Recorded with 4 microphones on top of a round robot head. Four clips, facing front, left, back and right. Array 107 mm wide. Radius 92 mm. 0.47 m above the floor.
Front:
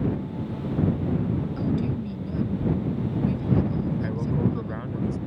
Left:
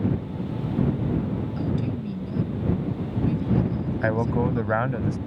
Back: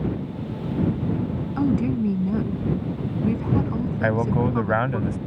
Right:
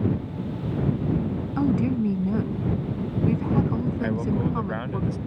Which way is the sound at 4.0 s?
145° left.